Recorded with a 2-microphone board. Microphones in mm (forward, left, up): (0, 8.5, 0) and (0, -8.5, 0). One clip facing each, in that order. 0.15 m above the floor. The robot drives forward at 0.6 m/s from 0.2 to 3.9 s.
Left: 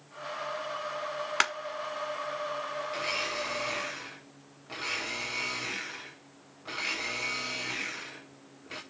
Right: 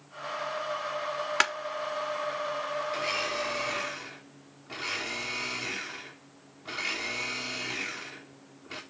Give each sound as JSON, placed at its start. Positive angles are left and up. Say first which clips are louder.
{"t": 1.4, "sound": "a clap", "louder": "right 1 dB", "side_deg": -5, "distance_m": 0.9}
{"t": 2.9, "sound": "a blender", "louder": "even", "side_deg": 15, "distance_m": 4.0}